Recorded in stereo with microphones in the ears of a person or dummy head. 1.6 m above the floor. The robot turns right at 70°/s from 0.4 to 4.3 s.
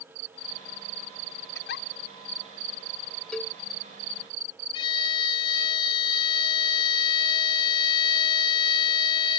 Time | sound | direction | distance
1.6 | a giggle | 75° left (ahead or behind) | ?
3.3 | a cowbell | 10° left (ahead or behind) | ?
4.7 | a violin | 30° left (ahead or behind) | ?